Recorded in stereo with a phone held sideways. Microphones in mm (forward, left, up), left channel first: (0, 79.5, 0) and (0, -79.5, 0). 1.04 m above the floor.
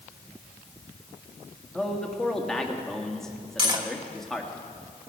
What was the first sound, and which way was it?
A man speaking, 5° left (ahead or behind).